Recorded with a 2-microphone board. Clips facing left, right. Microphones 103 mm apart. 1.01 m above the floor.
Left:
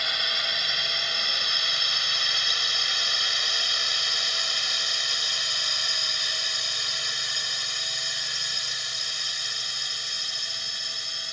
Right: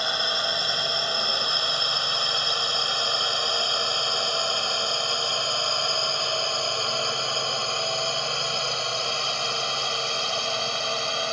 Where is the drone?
30° right (ahead or behind); by 11.3 s 70° right (ahead or behind).